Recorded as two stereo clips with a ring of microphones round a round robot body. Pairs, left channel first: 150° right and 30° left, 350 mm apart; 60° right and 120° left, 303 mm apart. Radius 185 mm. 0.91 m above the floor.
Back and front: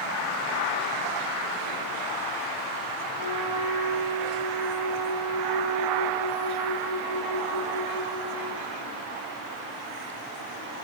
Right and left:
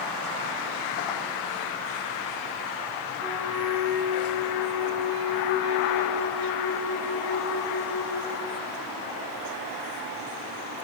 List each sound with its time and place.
3.2 s a flute: 160° right, 7.5 m